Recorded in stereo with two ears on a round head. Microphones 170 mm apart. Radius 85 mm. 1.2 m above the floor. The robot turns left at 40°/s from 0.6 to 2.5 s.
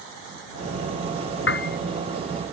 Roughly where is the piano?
Left.